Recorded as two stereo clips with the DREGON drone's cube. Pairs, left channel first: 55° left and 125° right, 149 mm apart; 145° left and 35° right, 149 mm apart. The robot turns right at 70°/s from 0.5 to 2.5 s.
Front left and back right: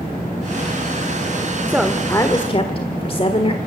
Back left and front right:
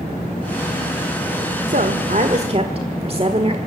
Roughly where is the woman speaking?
Ahead right.